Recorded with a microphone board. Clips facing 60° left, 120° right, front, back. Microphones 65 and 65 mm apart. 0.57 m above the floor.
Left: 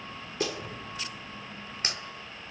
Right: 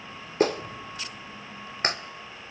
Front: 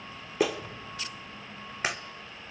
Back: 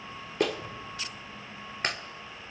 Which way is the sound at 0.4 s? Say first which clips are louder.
Right 9 dB, front 1 dB; 85° right.